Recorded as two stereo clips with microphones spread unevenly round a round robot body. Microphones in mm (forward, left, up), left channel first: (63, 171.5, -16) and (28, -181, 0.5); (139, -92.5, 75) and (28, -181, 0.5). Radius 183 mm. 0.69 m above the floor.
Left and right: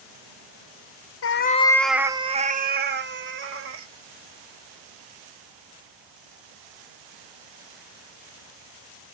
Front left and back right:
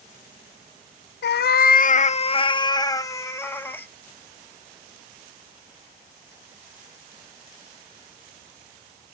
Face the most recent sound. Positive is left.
turn(degrees=-40)